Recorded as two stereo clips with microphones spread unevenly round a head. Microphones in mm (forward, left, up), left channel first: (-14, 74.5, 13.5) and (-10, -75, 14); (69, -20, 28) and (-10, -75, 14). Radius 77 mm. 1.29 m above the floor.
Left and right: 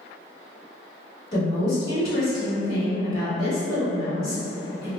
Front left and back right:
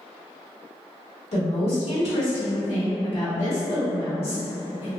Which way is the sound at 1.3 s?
25° left.